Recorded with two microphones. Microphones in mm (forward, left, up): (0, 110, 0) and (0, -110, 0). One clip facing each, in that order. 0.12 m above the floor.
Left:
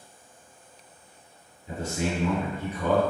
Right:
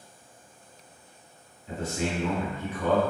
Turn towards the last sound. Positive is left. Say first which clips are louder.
# left 1 dB
turn(degrees=15)  # may be behind; listen again after turning